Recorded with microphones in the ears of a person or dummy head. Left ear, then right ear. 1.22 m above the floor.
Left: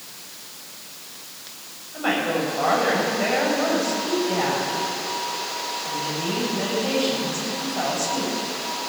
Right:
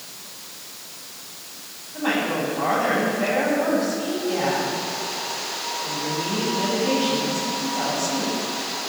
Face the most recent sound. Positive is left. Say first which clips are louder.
# left 1 dB
turn(degrees=75)  # may be behind; listen again after turning